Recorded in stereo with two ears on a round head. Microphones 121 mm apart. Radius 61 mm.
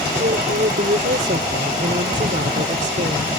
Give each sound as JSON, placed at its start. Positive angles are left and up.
{"t": 0.2, "sound": "a woman speaking", "side_deg": -65}